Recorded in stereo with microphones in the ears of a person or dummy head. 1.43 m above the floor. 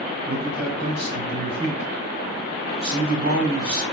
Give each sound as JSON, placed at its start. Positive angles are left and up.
{"t": 0.3, "sound": "a man speaking", "side_deg": -50, "distance_m": 4.0}